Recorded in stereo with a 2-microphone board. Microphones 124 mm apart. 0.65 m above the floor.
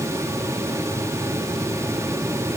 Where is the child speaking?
I don't hear a child speaking.